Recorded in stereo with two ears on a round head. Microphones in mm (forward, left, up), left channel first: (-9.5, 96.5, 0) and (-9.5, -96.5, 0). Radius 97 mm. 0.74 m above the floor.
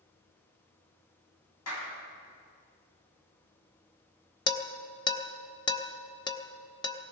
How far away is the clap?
About 4.5 m.